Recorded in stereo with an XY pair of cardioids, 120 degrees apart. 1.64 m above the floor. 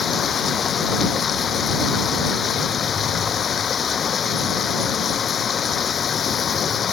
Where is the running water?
40° left.